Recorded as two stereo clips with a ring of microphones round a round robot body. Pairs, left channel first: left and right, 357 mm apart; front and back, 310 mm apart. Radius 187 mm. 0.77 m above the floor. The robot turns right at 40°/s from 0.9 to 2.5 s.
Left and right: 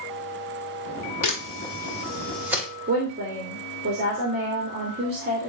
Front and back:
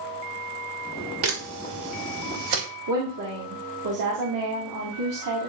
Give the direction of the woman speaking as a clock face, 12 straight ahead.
5 o'clock.